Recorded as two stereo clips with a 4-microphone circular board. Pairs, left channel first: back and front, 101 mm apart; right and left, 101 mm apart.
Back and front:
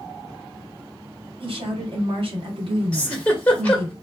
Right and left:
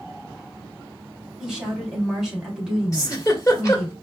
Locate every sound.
1.4 s a woman speaking: 5° left, 1.7 m
2.9 s a giggle: 110° right, 1.4 m